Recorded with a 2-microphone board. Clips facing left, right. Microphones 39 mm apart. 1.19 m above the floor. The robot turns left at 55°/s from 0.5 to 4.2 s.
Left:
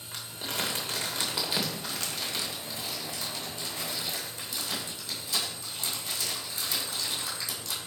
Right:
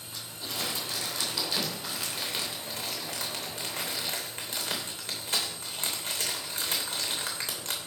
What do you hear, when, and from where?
0.1 s crumpling: 70° left (ahead or behind), 3 m; by 7.8 s 50° right (ahead or behind), 3 m